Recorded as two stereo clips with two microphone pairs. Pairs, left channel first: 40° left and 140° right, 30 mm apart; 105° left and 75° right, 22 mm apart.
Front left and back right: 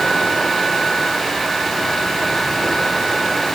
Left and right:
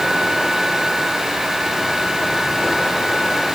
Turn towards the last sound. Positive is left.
No sound to turn to.